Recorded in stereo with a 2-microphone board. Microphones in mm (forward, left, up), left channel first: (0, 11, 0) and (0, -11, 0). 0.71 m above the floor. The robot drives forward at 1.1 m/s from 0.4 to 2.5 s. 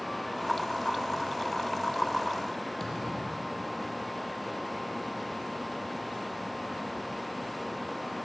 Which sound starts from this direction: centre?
A thud, at 2.8 s.